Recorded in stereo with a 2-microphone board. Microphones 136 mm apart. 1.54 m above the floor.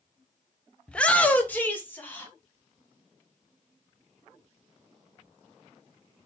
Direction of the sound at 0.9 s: 5° left (ahead or behind).